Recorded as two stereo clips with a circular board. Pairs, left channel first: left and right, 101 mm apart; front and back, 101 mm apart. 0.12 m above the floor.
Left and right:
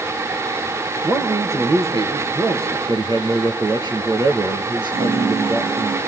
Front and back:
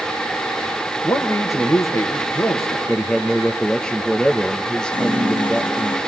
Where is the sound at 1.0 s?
50° right, 2.5 m.